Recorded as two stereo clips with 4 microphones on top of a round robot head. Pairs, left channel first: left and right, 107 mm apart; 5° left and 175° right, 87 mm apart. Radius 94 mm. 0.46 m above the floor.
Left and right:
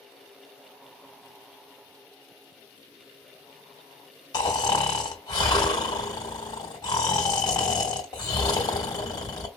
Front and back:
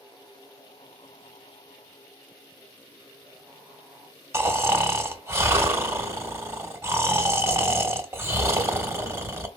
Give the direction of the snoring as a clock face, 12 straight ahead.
8 o'clock.